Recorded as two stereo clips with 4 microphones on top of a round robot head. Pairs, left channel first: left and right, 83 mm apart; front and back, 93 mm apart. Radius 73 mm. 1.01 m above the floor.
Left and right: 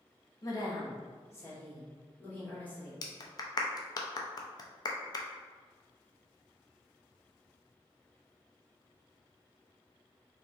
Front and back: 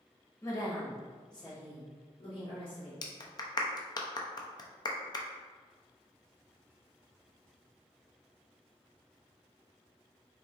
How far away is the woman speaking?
About 1.7 m.